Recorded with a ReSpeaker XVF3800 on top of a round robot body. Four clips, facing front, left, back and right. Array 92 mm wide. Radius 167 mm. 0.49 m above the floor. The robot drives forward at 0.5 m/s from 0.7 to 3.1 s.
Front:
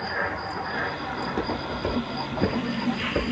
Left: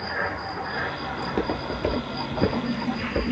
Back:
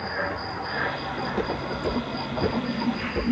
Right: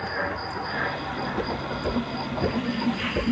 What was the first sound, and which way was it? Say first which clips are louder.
Footsteps: left 3 dB, back 1 dB; 75° left.